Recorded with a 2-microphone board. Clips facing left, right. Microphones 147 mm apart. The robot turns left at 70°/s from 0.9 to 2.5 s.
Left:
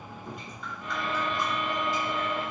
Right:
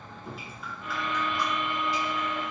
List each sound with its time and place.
0.2 s dripping: 175° right, 1.7 m; by 2.5 s 75° left, 1.7 m